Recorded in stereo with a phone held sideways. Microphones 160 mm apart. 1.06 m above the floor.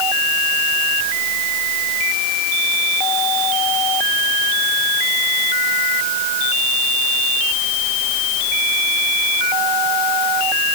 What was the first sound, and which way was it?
Only background noise.